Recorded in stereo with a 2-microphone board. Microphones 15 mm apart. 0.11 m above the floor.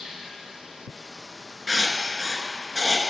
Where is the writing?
20° right (ahead or behind), 1.1 m.